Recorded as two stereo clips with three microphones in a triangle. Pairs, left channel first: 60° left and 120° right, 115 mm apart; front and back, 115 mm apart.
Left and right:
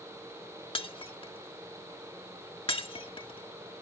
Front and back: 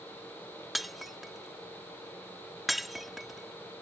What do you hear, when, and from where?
0.8 s breaking glass: 90° left